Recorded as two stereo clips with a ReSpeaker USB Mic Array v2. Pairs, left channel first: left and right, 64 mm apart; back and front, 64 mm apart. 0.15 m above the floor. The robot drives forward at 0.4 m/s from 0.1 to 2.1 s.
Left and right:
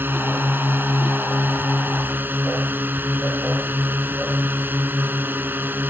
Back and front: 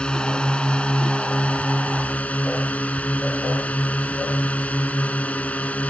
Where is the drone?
115° right; by 5.9 s 125° right.